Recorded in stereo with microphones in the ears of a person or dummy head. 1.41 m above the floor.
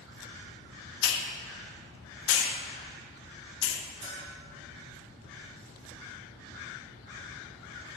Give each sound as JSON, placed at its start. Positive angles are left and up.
{"t": 1.0, "sound": "a hiss", "side_deg": 80, "distance_m": 0.9}
{"t": 4.0, "sound": "a bell", "side_deg": -45, "distance_m": 3.0}